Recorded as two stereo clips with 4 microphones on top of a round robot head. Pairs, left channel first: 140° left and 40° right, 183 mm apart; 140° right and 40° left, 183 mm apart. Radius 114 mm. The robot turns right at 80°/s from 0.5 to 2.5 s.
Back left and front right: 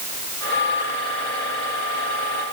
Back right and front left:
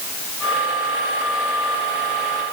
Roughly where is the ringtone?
No ringtone in this recording.